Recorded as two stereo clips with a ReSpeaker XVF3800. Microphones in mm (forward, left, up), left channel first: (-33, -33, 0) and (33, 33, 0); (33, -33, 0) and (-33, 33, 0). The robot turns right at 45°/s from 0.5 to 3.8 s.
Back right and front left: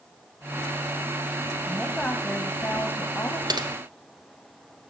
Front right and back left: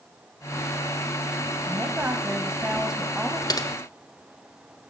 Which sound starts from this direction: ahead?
Typing on a keyboard, at 3.5 s.